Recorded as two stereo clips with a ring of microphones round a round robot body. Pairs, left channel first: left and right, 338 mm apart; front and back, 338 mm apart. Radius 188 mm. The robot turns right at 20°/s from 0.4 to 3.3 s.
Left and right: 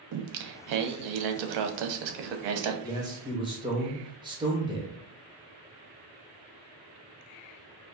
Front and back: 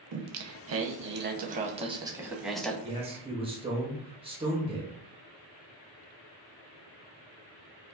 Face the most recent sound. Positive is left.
turn(degrees=-140)